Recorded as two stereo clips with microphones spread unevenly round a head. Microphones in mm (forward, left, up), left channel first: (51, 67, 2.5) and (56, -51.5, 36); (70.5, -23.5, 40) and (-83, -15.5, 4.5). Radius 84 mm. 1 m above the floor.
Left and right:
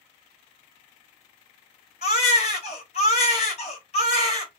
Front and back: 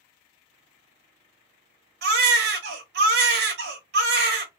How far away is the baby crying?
About 0.9 m.